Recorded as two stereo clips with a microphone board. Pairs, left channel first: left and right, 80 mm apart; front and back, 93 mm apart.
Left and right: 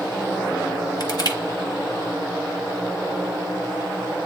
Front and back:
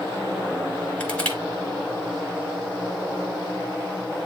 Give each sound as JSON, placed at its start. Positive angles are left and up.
{"t": 1.0, "sound": "crushing", "azimuth_deg": 75, "distance_m": 2.0}